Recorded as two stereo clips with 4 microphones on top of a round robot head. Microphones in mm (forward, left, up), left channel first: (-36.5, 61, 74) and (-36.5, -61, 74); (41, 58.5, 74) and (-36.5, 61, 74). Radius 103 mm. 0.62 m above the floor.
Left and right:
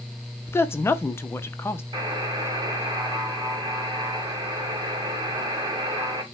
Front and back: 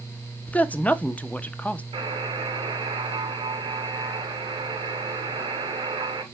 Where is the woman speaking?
45° left, 0.5 m.